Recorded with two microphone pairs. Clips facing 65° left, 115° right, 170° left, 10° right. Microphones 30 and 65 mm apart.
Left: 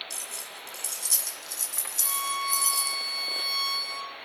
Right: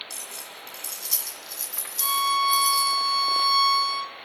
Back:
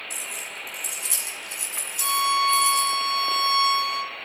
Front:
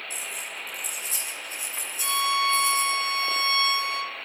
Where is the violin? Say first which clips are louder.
Right 8 dB, back 3 dB; 155° right, 1.8 m.